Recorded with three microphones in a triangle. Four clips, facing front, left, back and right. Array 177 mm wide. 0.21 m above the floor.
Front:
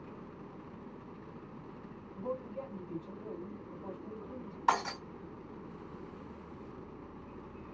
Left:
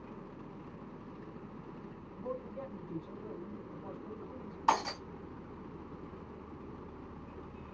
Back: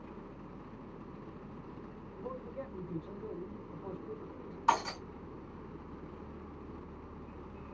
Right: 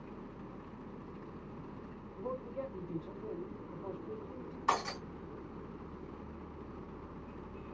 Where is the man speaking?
5° right, 1.7 m.